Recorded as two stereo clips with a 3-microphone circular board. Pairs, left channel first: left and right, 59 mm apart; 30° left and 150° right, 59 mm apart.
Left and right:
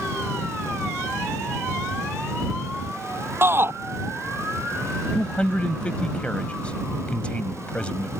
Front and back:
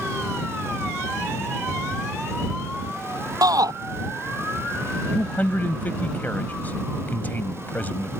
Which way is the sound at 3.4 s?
140° right.